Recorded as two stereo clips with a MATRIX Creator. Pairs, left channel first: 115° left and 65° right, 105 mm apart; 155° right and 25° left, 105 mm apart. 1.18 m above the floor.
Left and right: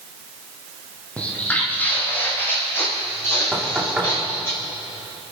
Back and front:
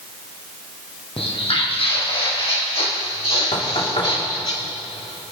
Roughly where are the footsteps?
Behind.